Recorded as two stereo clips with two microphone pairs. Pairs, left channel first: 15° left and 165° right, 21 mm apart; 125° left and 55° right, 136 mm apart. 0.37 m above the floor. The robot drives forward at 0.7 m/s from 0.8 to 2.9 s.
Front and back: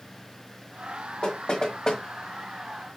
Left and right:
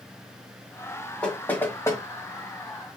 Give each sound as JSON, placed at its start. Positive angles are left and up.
{"t": 1.2, "sound": "knocking", "azimuth_deg": 40, "distance_m": 1.5}